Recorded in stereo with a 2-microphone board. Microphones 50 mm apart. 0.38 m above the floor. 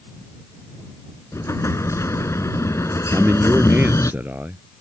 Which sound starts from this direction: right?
A man speaking, at 3.1 s.